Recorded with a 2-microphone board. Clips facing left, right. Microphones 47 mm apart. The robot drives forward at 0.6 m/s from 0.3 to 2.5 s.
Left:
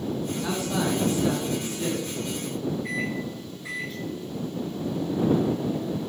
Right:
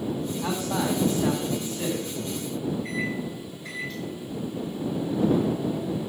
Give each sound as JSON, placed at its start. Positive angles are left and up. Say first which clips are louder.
{"t": 0.4, "sound": "a man speaking", "louder": "even", "side_deg": -35, "distance_m": 6.0}
{"t": 2.8, "sound": "a microwave", "louder": "even", "side_deg": 15, "distance_m": 7.5}